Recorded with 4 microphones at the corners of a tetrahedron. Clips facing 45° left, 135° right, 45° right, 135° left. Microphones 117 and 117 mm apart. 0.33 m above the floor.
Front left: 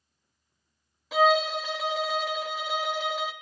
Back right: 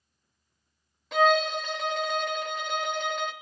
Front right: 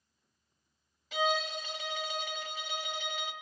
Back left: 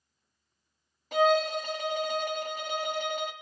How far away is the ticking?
I don't hear ticking.